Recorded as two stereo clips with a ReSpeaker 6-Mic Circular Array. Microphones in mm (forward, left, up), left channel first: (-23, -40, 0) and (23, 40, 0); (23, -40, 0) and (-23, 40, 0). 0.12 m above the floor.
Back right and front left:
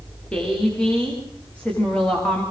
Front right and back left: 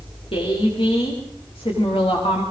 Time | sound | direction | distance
0.3 | a woman speaking | 40° right | 9 m